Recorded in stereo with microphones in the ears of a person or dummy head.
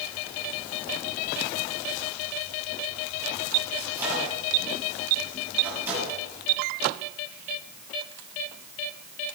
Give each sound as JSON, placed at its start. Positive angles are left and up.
{"t": 3.8, "sound": "a microwave", "side_deg": -10, "distance_m": 8.0}